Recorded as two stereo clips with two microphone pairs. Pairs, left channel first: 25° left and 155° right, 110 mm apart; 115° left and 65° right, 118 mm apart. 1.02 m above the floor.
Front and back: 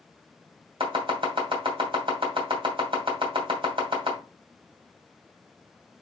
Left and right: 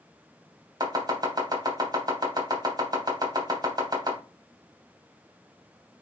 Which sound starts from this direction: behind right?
Chopping, at 0.8 s.